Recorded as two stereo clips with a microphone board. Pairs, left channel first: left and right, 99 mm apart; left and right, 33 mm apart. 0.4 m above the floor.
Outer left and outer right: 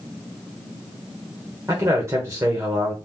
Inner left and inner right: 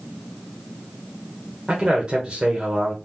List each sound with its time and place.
1.7 s a man speaking: 30° right (ahead or behind), 1.0 m